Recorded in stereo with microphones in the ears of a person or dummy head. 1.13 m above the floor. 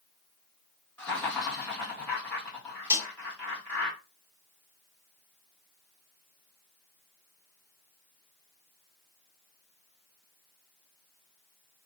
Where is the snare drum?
10° right (ahead or behind), 1.2 m.